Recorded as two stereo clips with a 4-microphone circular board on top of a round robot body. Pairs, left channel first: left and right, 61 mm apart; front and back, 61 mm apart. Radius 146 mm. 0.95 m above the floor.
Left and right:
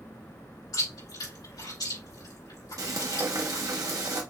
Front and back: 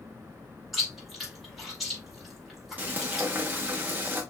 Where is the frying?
120° right, 1.1 m.